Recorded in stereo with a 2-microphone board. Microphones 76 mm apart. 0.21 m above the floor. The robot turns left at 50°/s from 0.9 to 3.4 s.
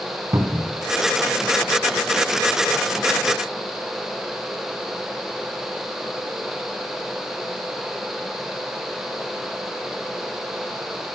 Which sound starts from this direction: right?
A cupboard door, at 0.3 s.